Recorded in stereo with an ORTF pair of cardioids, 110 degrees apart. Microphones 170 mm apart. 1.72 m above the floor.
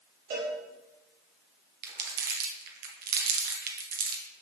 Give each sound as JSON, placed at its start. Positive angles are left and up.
{"t": 0.3, "sound": "a cowbell", "azimuth_deg": -65, "distance_m": 3.5}
{"t": 1.8, "sound": "crumpling", "azimuth_deg": -70, "distance_m": 1.7}